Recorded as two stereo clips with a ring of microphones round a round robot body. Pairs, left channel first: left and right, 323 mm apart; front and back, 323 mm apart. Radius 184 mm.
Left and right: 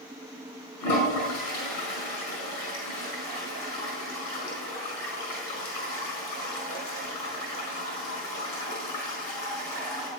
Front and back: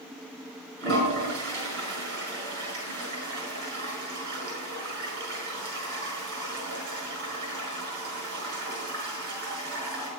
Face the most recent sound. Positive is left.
turn(degrees=120)